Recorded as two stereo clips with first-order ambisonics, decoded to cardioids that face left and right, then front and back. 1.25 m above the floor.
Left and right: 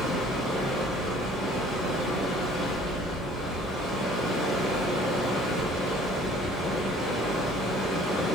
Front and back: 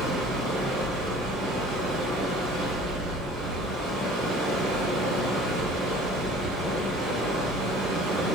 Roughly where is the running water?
Behind.